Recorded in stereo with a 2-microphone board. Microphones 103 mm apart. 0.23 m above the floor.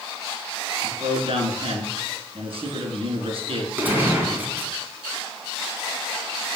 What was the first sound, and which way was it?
A man speaking, 65° right (ahead or behind).